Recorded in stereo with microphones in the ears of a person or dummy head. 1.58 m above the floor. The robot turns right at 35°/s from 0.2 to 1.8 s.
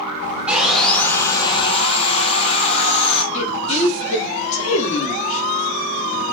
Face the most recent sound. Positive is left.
turn(degrees=45)  # may be behind; listen again after turning